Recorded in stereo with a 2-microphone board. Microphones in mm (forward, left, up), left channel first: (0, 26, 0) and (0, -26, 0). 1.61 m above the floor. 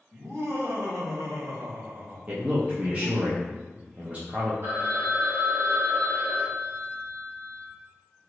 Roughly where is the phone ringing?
Right.